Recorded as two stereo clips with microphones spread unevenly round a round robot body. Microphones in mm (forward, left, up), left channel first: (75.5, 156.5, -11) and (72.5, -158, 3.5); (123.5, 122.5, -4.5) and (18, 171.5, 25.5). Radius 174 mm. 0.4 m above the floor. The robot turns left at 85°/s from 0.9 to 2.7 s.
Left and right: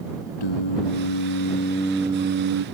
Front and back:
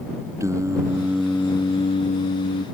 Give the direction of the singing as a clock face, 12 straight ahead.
9 o'clock.